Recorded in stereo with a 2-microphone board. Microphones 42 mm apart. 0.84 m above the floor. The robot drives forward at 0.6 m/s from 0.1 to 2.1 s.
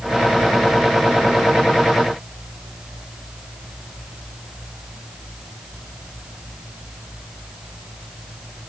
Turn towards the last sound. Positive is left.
No sound to turn to.